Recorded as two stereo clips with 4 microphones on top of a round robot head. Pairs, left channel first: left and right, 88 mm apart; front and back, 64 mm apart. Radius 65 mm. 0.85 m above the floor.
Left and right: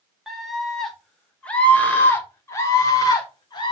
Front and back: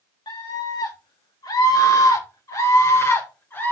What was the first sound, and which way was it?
A scream, straight ahead.